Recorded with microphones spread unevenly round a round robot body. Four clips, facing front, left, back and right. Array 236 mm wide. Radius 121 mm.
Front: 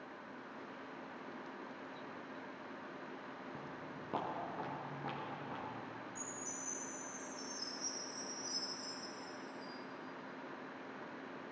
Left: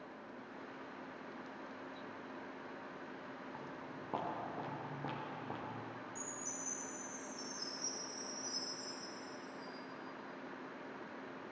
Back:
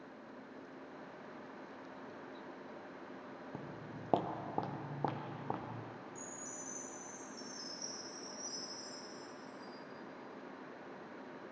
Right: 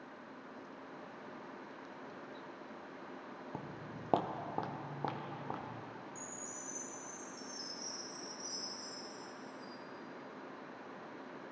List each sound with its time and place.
3.5 s footsteps: 110° right, 0.9 m; by 5.8 s 175° right, 1.6 m
6.2 s a chime: 175° left, 4 m